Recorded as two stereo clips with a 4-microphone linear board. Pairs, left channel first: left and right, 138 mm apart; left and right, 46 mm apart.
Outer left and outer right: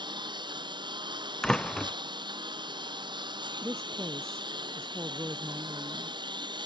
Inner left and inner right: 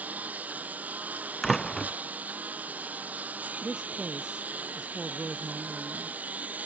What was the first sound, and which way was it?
A lawn mower, 35° right (ahead or behind).